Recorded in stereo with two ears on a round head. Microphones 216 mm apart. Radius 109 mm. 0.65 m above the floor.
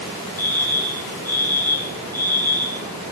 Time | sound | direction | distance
0.4 | a fire alarm | 10° left (ahead or behind) | 6 m